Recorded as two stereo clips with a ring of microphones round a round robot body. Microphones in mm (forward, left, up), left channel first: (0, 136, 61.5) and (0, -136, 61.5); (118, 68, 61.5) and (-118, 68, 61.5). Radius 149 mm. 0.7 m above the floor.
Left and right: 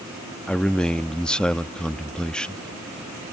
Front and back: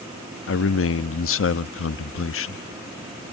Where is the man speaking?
5° left.